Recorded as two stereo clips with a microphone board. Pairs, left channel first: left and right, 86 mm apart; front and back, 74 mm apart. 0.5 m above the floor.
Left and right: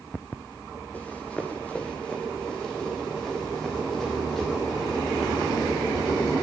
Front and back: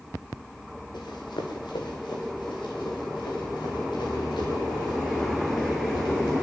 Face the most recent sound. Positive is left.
turn(degrees=0)